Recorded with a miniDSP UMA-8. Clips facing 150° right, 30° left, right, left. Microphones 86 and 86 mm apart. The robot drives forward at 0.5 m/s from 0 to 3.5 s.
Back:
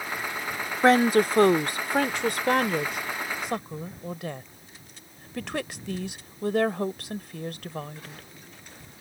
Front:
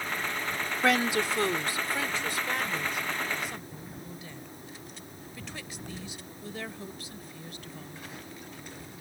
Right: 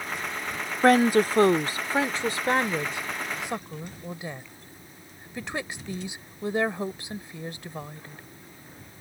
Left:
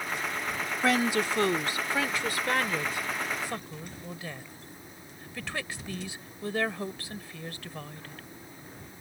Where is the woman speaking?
110° right; by 8.2 s 160° right.